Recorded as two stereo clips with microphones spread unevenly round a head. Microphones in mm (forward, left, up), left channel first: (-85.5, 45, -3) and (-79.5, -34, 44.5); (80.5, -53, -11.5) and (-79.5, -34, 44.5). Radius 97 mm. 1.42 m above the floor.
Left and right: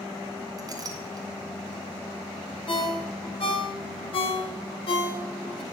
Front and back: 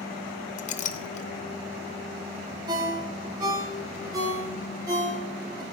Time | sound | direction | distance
0.6 | a clink | 55° right | 0.8 m
2.7 | a ringtone | 105° left | 2 m